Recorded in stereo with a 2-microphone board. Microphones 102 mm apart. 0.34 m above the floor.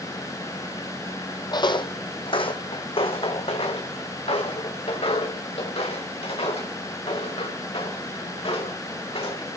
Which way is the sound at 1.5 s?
45° left (ahead or behind).